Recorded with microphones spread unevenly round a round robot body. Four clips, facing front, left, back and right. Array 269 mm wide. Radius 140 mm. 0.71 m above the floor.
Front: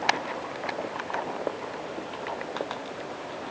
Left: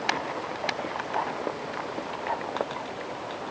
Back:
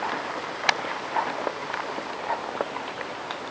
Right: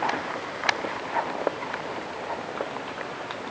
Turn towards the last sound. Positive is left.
No sound to turn to.